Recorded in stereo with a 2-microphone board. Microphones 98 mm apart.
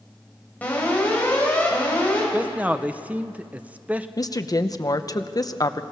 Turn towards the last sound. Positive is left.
turn(degrees=40)  # may be behind; listen again after turning